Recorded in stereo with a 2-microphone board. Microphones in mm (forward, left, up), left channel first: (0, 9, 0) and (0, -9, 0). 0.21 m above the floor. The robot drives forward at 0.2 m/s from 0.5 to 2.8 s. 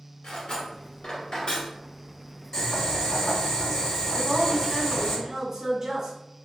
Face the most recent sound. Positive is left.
turn(degrees=-30)  # may be behind; listen again after turning